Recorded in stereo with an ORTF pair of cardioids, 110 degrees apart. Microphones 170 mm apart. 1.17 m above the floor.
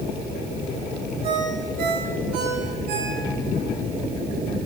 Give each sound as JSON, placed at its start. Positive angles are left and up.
{"t": 1.2, "sound": "a ringtone", "azimuth_deg": -65, "distance_m": 5.5}